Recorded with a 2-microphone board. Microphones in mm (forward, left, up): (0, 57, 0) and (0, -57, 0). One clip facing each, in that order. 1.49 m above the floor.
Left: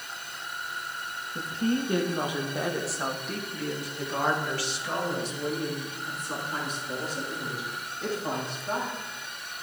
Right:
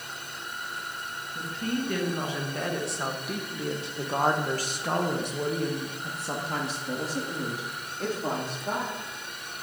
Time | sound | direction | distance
1.4 | a woman speaking | 30° left (ahead or behind) | 1.9 m